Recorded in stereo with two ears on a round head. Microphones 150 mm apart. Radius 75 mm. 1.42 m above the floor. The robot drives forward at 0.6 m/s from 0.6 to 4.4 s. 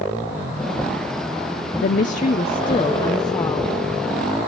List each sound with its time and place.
1.8 s a woman speaking: 55° left (ahead or behind), 0.7 m; by 3.8 s 20° left (ahead or behind), 1.6 m